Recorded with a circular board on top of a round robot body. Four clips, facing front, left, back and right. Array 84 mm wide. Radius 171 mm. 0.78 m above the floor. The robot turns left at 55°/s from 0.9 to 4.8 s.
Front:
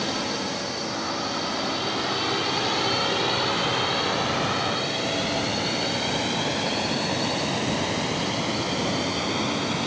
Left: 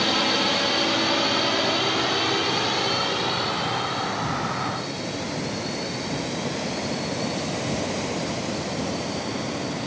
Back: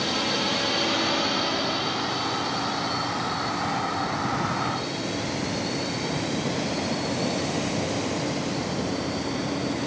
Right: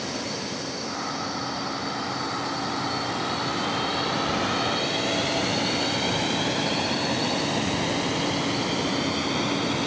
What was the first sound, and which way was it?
A drone, 95° left.